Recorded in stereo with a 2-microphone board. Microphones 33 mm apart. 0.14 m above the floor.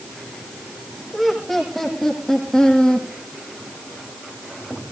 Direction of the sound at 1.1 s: 5° left (ahead or behind).